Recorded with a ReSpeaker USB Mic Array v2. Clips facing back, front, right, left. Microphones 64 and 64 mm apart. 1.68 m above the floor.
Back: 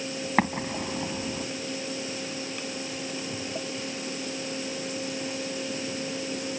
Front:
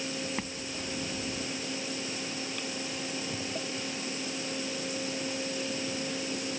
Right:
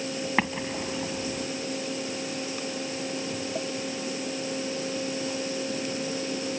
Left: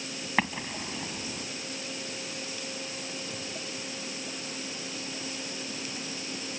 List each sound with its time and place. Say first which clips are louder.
0.4 s an explosion: back 11 dB, even; 175° right